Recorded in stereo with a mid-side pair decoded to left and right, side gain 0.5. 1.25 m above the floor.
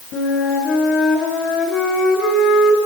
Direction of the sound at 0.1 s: 65° left.